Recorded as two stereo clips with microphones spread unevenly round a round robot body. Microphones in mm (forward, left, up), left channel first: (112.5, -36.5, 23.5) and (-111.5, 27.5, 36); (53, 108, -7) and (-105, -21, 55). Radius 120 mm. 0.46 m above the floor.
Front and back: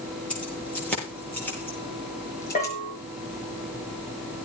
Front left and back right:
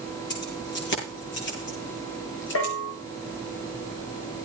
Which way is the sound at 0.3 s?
70° left.